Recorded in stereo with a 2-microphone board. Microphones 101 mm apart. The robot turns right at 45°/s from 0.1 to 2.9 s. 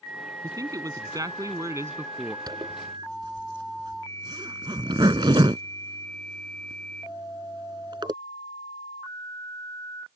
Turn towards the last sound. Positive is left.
turn(degrees=-50)  # may be behind; listen again after turning